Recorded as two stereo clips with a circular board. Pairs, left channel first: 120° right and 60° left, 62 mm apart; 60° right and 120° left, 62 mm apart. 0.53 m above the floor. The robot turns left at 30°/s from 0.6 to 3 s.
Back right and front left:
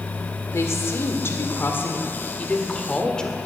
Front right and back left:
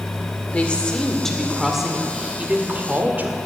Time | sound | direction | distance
0.5 | a woman speaking | 120° right | 1.7 m